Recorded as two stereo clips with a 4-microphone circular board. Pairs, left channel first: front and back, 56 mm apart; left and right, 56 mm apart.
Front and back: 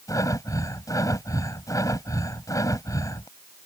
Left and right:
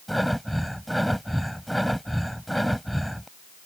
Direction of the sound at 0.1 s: Straight ahead.